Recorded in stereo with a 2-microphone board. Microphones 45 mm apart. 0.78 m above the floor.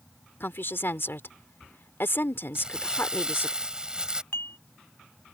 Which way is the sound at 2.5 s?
20° right (ahead or behind).